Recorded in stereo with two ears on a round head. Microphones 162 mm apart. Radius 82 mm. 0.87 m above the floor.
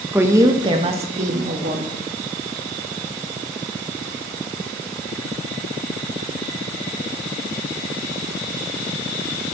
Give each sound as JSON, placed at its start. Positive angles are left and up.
{"t": 0.1, "sound": "a woman speaking", "side_deg": -10, "distance_m": 1.0}